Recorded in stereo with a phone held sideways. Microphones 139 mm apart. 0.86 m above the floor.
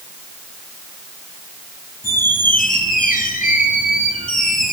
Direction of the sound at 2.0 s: 80° left.